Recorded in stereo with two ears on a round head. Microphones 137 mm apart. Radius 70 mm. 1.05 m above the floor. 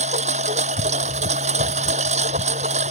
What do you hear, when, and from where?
0.0 s a lawn mower: 45° right (ahead or behind)